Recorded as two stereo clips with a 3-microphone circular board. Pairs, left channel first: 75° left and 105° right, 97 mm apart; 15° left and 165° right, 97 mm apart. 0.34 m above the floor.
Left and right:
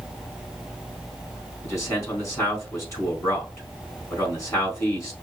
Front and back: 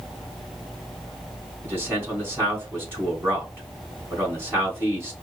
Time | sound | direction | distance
1.6 | a man speaking | 130° left | 3.5 m